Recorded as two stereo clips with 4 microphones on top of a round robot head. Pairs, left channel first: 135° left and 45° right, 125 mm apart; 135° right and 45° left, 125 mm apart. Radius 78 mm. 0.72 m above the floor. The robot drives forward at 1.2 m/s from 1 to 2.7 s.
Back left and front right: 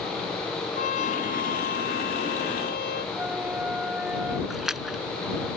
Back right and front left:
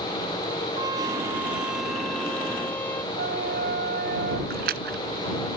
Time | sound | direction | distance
0.8 | a trumpet | 110° left | ?
3.1 | a flute | 35° left | ?
4.5 | a splash | 40° left | ?